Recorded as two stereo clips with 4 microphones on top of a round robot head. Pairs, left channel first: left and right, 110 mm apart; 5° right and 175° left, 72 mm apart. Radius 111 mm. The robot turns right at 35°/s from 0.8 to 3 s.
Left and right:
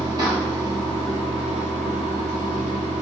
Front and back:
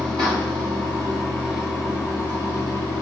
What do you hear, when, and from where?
0.0 s running water: 135° right, 0.9 m; by 3.0 s 55° right, 0.9 m